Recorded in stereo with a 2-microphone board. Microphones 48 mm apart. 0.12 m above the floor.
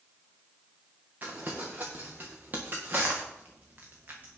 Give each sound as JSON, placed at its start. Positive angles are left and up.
{"t": 1.2, "sound": "crumpling", "side_deg": -40, "distance_m": 2.0}